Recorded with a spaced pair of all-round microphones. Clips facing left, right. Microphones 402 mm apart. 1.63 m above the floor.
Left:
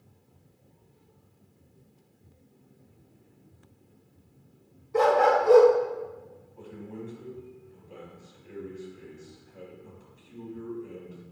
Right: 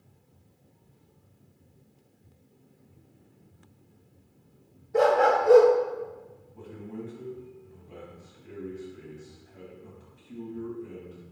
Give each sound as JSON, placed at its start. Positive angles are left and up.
{"t": 4.9, "sound": "a dog barking", "side_deg": 15, "distance_m": 1.4}
{"t": 6.5, "sound": "a man speaking", "side_deg": -80, "distance_m": 3.0}